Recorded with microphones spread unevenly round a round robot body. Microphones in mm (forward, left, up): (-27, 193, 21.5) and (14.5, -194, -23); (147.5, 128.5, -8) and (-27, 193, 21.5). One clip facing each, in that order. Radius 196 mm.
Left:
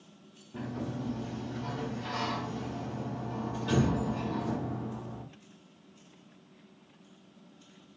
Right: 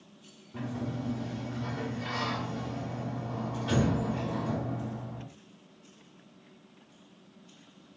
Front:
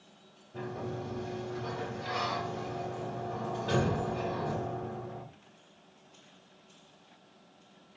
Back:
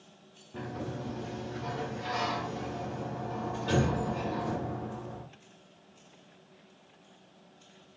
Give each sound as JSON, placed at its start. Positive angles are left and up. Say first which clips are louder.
{"t": 0.5, "sound": "a sliding door", "louder": "right 1 dB, even", "azimuth_deg": 180, "distance_m": 0.9}